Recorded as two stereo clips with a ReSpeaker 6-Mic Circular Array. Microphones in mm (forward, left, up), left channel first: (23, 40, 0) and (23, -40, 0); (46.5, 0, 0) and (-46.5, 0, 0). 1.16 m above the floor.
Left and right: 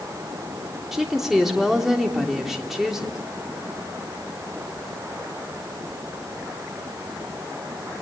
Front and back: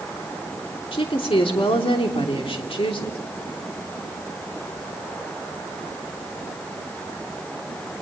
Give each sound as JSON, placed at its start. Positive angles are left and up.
{"t": 0.9, "sound": "a woman speaking", "azimuth_deg": -5, "distance_m": 3.0}